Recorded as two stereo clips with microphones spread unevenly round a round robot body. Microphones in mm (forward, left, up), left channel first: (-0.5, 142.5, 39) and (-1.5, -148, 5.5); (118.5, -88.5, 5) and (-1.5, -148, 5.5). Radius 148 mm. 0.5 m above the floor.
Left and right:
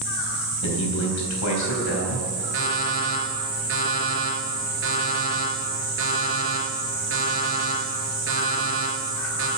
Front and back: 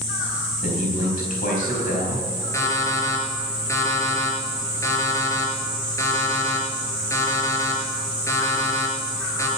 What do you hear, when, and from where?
0.6 s a man speaking: 55° left, 3.5 m
2.5 s an alarm clock: 40° right, 4 m